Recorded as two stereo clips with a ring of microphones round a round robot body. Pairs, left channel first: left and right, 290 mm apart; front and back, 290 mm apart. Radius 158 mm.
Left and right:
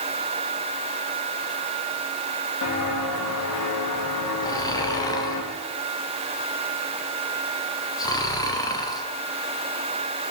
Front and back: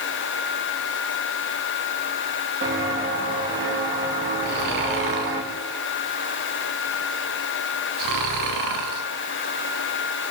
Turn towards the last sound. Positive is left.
turn(degrees=165)